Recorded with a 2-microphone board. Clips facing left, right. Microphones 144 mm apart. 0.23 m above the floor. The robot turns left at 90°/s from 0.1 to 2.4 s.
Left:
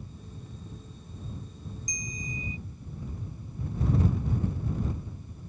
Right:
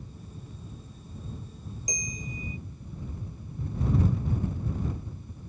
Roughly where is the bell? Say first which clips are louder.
Right 2 dB; right.